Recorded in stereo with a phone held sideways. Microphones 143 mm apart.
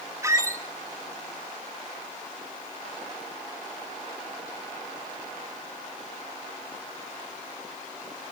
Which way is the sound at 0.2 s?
20° right (ahead or behind).